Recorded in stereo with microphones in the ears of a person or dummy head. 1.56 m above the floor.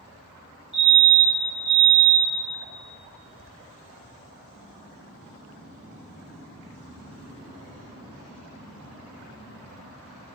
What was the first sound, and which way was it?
A fire alarm, 60° right (ahead or behind).